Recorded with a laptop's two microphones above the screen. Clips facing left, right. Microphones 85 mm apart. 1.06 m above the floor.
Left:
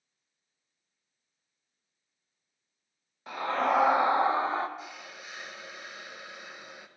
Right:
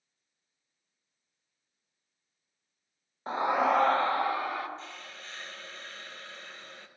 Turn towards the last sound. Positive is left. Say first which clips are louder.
# left 1 dB
turn(degrees=10)  # may be behind; listen again after turning